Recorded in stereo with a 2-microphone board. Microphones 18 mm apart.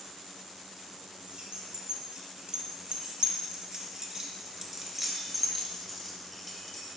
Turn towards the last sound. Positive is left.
turn(degrees=20)  # may be behind; listen again after turning